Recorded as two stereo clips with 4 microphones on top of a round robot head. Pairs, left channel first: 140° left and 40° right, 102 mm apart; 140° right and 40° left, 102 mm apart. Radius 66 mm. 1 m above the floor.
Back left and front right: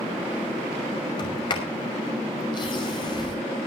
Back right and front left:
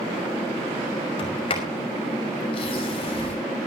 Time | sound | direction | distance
1.2 | a sliding door | 175° right | 5.5 m